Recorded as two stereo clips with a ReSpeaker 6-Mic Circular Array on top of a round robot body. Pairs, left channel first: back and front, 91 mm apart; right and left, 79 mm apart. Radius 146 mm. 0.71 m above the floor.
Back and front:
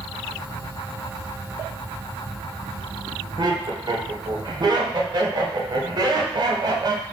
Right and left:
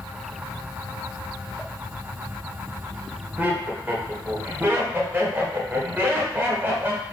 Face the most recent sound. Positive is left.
turn(degrees=30)